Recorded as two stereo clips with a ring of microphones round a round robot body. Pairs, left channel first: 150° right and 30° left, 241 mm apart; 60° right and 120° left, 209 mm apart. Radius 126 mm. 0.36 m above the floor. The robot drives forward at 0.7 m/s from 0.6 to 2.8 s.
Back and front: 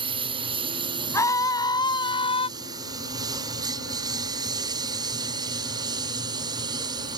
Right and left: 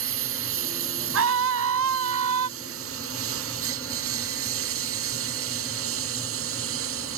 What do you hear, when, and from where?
0.0 s a lawn mower: 100° left; by 7.2 s 105° left
1.1 s a scream: 130° left; by 2.5 s 140° left